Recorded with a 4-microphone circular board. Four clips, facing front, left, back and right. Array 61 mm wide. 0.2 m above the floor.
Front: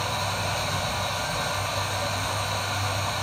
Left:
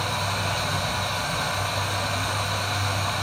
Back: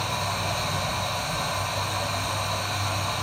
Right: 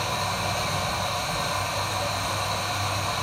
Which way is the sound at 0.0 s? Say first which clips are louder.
Even, even; 70° left.